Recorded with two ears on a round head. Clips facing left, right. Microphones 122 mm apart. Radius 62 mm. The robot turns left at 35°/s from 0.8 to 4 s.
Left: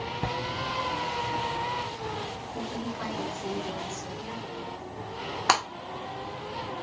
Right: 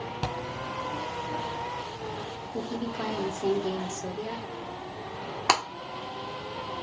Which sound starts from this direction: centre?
Breaking glass, at 5.5 s.